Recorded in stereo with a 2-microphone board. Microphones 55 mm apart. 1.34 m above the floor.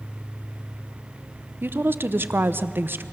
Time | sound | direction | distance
1.6 | a woman speaking | 40° right (ahead or behind) | 0.7 m